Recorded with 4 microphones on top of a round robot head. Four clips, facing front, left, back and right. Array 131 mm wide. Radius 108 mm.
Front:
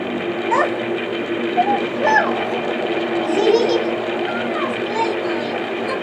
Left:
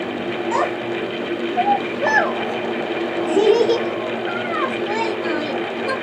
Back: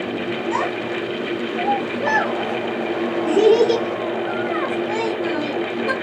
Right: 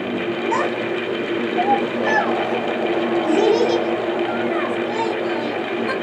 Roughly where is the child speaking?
Ahead.